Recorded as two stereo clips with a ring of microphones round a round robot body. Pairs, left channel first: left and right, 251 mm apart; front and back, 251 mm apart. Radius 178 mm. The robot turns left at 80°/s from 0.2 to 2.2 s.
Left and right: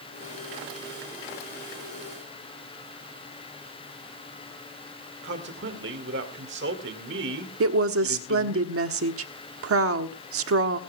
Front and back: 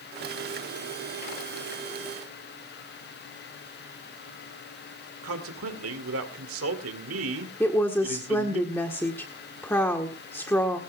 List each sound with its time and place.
5.2 s a man speaking: 140° right, 2 m
7.6 s a woman speaking: 80° right, 1.4 m